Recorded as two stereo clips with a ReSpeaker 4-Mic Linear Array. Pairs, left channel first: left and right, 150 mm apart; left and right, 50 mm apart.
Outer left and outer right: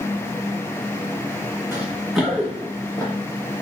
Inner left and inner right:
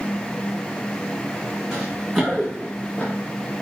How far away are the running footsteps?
About 1.4 m.